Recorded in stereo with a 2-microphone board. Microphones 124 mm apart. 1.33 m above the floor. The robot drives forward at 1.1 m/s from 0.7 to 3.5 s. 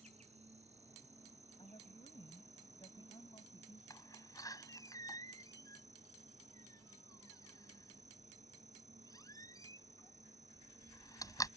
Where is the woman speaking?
50° left (ahead or behind); by 3.8 s 40° left (ahead or behind).